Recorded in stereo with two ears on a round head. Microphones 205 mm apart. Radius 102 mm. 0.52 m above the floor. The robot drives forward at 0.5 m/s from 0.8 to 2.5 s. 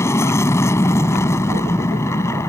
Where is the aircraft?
10° left (ahead or behind).